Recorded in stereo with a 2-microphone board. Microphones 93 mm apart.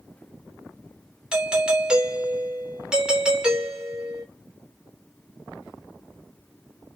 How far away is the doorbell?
About 3 m.